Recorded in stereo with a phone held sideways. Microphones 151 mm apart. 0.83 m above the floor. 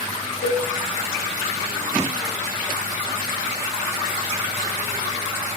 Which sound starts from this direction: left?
A cowbell, at 0.4 s.